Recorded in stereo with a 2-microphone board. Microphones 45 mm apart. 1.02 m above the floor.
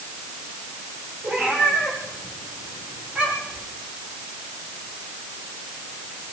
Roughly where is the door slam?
I don't hear a door slam.